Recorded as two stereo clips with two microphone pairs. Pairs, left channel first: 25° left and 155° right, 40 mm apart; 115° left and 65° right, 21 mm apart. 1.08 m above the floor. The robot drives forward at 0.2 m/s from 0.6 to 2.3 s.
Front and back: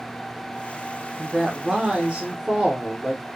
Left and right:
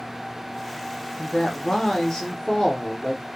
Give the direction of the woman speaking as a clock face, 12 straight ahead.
8 o'clock.